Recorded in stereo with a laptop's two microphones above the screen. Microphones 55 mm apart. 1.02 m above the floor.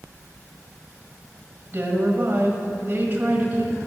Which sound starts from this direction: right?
A woman speaking, at 1.7 s.